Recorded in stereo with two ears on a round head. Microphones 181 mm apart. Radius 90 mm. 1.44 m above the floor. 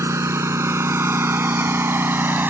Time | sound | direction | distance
0.0 | a lawn mower | 15° right (ahead or behind) | ?